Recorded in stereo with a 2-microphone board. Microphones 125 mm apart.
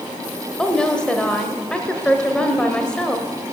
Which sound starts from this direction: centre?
A woman speaking, at 0.6 s.